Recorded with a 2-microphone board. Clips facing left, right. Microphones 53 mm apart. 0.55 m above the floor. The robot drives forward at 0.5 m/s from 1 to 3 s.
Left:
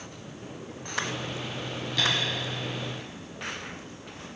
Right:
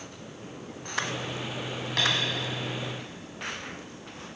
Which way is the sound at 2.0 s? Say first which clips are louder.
Even; 70° right (ahead or behind).